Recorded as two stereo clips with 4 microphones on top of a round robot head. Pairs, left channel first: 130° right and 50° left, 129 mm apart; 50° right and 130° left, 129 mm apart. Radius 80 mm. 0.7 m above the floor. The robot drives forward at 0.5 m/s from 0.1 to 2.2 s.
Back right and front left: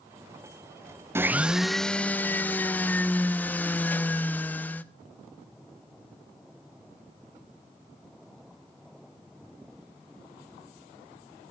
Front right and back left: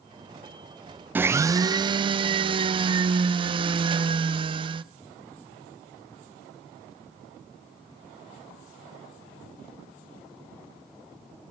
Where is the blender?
80° left, 0.6 m; by 4.8 s 160° left, 0.7 m.